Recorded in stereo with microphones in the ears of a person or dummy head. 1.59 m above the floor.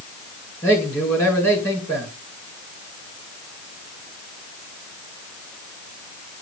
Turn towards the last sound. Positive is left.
turn(degrees=10)  # may be behind; listen again after turning